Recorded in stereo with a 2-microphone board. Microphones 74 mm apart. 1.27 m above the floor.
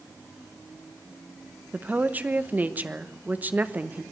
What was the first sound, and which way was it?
A woman speaking, 25° right (ahead or behind).